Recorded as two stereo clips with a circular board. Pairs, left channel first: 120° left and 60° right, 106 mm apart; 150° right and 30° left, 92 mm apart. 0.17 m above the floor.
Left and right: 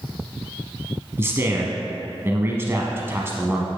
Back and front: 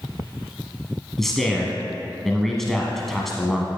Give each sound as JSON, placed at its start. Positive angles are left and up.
{"t": 1.2, "sound": "a man speaking", "azimuth_deg": -70, "distance_m": 1.1}